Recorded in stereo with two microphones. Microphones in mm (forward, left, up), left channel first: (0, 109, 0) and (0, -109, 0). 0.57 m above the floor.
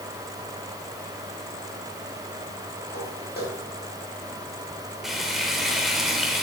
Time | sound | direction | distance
2.9 | footsteps | 45° left (ahead or behind) | 7 m
5.0 | frying | centre (ahead or behind) | 2 m